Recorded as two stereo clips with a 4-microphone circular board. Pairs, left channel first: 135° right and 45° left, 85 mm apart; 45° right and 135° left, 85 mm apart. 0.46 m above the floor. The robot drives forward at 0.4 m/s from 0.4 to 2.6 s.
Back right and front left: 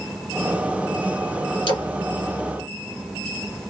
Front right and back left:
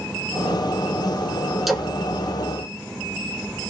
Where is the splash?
135° right, 1.8 m; by 1.9 s 140° right, 1.9 m.